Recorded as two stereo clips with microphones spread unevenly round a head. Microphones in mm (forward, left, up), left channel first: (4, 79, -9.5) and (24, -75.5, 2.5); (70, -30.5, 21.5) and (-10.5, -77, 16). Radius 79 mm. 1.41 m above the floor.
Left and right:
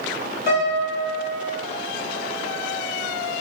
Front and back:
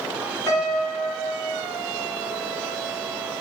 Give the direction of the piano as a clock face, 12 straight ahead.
9 o'clock.